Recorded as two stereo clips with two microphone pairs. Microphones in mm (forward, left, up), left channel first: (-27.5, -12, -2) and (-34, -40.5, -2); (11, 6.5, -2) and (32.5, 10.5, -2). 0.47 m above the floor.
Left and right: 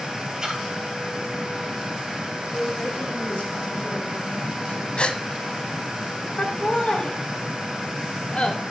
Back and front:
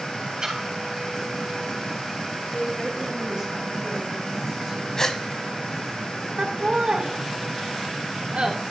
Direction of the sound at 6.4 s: 45° left.